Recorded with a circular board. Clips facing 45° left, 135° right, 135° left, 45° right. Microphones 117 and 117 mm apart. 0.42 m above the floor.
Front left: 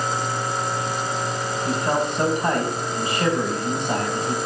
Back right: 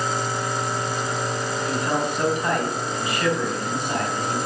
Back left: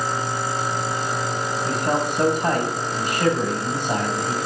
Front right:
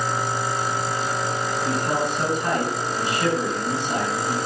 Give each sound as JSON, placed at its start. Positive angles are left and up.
{"t": 1.6, "sound": "a man speaking", "azimuth_deg": 100, "distance_m": 2.5}